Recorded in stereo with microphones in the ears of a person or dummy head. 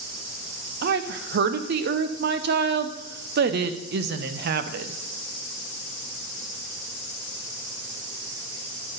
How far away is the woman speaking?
About 0.7 m.